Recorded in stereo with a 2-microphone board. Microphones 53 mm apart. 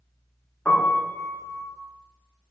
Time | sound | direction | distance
0.7 | a piano | 25° left (ahead or behind) | 0.5 m